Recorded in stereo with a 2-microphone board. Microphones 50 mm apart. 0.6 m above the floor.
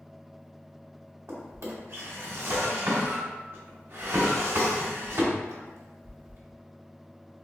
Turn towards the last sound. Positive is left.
turn(degrees=-60)  # may be behind; listen again after turning